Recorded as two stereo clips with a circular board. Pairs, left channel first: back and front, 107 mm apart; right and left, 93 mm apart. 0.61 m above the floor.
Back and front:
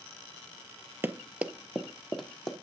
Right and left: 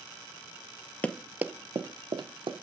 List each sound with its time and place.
1.0 s running footsteps: 40° right, 0.6 m; by 2.5 s 95° left, 1.4 m